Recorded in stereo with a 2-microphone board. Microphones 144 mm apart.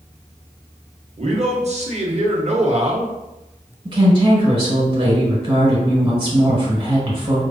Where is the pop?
I don't hear a pop.